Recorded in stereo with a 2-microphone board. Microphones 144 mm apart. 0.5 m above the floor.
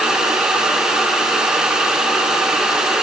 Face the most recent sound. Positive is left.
No sound to turn to.